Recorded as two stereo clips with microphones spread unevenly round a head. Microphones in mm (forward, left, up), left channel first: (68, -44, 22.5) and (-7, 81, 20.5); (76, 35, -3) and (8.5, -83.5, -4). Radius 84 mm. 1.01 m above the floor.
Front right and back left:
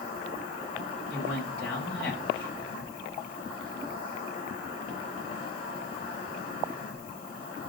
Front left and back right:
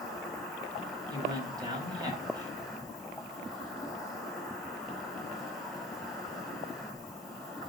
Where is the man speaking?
60° right, 6 m.